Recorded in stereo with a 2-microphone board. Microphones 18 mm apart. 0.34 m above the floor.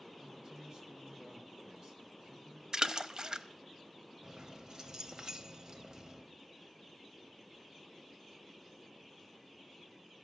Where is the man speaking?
55° right (ahead or behind), 2.5 m.